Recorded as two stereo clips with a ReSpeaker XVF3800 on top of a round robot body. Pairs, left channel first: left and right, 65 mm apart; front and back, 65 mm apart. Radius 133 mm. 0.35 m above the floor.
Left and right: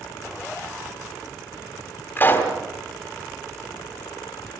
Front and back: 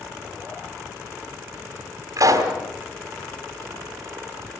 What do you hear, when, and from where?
2.2 s a pop: 150° left, 3 m